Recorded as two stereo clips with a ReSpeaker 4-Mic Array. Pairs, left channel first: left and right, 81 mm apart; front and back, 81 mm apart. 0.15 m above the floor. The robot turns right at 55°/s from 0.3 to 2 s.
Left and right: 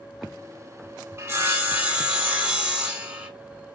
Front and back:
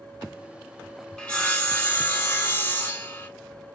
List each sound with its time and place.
1.2 s sawing: 75° right, 1.0 m; by 3.3 s 30° right, 1.0 m